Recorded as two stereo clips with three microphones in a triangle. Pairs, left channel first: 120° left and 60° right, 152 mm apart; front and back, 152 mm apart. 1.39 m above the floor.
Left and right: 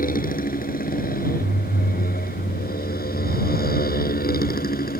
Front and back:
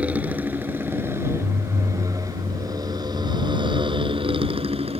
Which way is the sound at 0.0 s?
100° left.